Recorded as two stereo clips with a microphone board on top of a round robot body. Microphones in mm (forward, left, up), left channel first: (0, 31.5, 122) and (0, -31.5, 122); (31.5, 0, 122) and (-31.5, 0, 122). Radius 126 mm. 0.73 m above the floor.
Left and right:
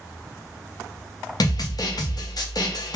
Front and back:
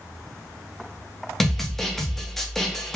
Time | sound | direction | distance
1.4 | a snare drum | 85° left | 0.8 m